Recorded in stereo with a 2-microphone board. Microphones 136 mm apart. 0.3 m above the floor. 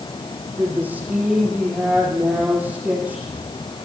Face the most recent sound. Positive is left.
turn(degrees=-10)  # may be behind; listen again after turning